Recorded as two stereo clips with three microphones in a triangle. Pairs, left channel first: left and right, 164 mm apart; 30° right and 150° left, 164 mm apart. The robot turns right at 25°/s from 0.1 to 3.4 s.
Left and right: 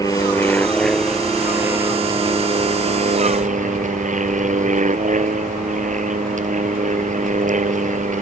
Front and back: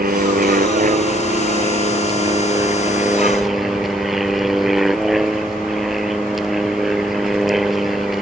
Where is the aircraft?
155° left; by 8.2 s 120° right.